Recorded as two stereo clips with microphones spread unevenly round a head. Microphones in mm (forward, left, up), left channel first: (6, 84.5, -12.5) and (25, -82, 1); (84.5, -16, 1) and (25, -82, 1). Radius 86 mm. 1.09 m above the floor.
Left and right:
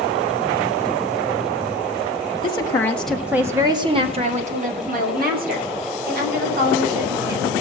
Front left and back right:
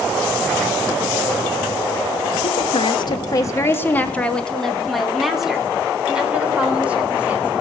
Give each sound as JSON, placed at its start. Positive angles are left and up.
{"t": 2.4, "sound": "a woman speaking", "azimuth_deg": 35, "distance_m": 1.2}